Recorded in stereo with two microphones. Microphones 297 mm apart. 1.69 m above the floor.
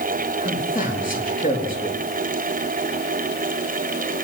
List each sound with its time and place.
0.4 s a man speaking: 30° left (ahead or behind), 4 m